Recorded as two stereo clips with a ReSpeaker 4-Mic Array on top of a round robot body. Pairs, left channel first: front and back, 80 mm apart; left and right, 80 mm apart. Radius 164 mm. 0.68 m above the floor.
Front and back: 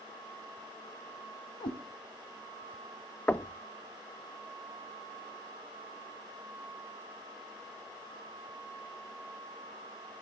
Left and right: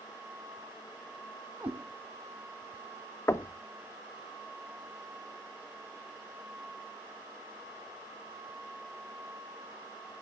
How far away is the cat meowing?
About 0.8 m.